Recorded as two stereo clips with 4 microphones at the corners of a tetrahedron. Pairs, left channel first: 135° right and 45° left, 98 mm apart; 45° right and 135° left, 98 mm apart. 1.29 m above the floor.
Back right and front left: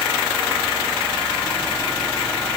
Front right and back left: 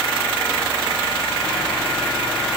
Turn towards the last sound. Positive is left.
No sound to turn to.